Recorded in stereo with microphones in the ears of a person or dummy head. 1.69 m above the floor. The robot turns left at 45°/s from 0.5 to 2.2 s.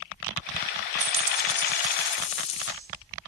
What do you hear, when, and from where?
1.0 s a dropped coin: 165° right, 2 m; by 2.7 s 140° left, 2 m